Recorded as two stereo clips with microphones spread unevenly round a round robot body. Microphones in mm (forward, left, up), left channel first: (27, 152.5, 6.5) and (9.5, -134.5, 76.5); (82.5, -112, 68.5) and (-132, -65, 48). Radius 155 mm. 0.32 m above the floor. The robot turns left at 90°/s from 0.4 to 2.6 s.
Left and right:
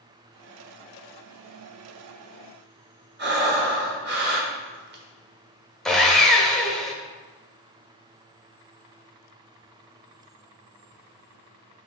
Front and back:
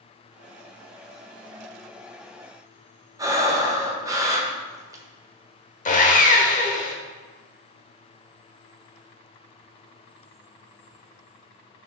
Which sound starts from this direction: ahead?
Sawing, at 5.8 s.